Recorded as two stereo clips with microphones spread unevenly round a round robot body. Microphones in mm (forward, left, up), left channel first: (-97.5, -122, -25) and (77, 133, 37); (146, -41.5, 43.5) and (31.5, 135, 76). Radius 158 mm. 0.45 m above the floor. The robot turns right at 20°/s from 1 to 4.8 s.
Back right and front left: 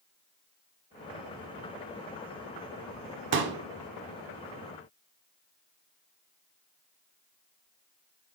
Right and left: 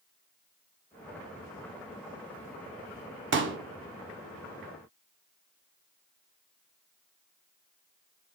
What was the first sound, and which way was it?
A pop, 110° left.